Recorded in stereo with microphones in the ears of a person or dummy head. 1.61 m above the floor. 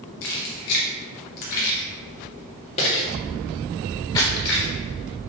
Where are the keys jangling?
50° left (ahead or behind), 1.3 m; by 4.6 s 20° left (ahead or behind), 2.5 m.